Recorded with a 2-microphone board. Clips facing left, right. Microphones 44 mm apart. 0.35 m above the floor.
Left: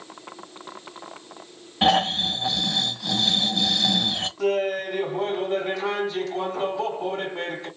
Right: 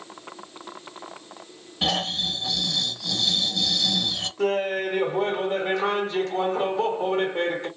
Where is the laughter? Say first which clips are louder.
Even; 50° right (ahead or behind), 2.0 m.